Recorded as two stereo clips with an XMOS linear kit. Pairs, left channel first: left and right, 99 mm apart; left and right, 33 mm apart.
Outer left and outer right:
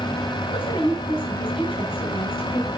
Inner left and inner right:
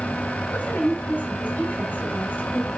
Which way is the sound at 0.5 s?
70° left (ahead or behind).